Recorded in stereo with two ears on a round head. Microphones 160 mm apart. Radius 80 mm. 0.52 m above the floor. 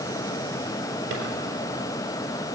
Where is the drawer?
85° right, 4 m.